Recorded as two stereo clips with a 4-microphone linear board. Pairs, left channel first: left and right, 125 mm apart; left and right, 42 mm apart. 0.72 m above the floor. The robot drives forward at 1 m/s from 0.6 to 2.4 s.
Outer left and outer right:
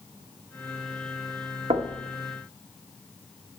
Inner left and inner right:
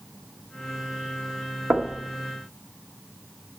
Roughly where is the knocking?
Right.